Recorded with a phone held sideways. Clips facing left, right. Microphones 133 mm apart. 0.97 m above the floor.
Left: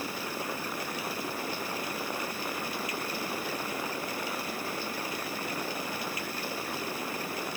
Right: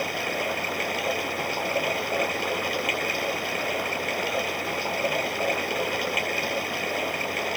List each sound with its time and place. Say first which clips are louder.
0.0 s running water: right 7 dB; 70° right (ahead or behind)